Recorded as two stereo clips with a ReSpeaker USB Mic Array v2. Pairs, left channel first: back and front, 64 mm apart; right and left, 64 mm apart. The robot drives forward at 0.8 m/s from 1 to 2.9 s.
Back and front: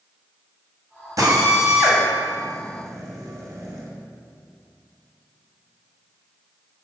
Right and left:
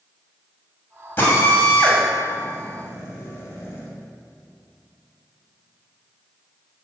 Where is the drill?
30° right, 6 m; by 3.9 s 35° right, 5 m.